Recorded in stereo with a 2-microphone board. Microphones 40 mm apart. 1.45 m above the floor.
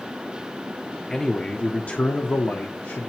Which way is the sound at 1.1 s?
15° left (ahead or behind).